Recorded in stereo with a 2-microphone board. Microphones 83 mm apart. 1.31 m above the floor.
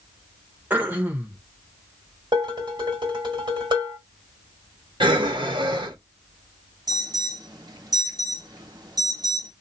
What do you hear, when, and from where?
0.7 s throat clearing: 20° right (ahead or behind), 1.0 m
2.3 s dishes clattering: 60° right (ahead or behind), 1.8 m
5.0 s breathing: 75° right (ahead or behind), 1.0 m
6.9 s an alarm: 50° right (ahead or behind), 1.2 m